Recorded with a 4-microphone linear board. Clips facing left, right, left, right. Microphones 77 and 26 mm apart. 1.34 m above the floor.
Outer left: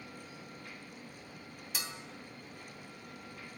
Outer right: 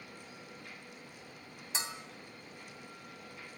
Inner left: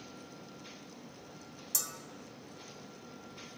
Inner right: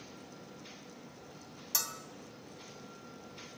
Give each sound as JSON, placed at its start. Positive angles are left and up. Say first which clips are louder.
{"t": 1.7, "sound": "a bell", "louder": "outer right 3 dB, inner right 2 dB", "side_deg": -30, "distance_m": 2.5}